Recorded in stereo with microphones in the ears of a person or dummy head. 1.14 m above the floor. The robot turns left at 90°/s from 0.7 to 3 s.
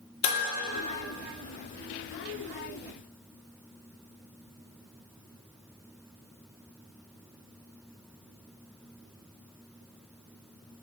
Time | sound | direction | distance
0.2 | dishes clattering | 35° left (ahead or behind) | 1.8 m